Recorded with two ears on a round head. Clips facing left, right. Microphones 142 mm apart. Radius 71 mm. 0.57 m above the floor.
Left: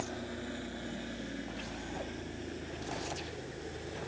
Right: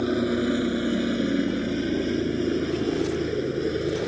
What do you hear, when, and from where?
0.0 s a helicopter: 80° right